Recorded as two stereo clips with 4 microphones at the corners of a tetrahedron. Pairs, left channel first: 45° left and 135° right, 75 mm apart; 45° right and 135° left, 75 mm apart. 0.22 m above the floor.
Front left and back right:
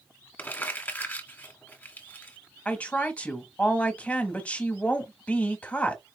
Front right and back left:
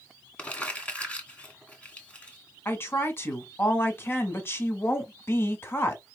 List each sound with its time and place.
0.4 s crumpling: 5° left, 1.8 m
2.6 s a woman speaking: 15° right, 1.3 m